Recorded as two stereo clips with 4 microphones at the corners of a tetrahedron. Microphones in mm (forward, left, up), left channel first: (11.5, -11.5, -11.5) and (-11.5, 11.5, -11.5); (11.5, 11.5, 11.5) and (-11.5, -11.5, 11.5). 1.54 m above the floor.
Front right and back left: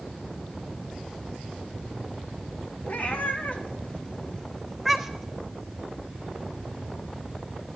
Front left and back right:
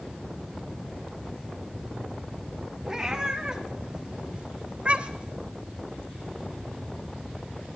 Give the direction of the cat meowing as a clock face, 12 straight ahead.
2 o'clock.